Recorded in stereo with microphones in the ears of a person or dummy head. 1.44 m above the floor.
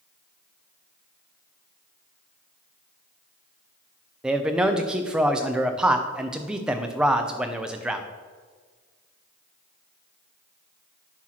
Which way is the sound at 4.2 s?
5° right (ahead or behind).